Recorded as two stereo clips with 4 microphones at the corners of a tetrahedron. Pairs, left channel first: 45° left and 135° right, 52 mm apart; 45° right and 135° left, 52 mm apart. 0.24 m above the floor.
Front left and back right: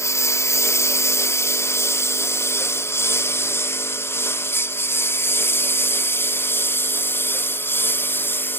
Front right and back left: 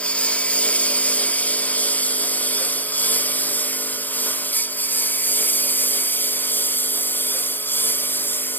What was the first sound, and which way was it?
A lawn mower, 20° left.